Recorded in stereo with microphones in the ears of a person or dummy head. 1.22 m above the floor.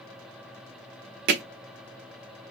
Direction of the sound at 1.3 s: 50° right (ahead or behind).